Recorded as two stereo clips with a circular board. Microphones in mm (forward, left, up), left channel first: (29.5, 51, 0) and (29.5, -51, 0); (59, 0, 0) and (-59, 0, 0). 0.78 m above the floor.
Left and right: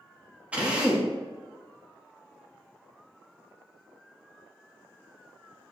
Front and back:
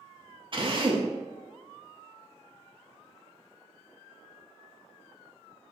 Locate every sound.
0.5 s a drill: 165° right, 1.5 m